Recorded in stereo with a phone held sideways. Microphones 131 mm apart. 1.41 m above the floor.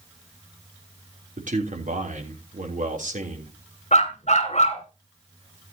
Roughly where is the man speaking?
Right.